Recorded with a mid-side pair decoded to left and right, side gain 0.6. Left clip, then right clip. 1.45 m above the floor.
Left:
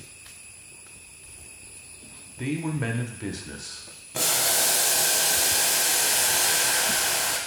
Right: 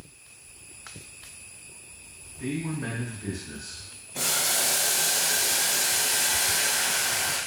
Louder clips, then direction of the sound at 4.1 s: Left 2 dB; 40° left.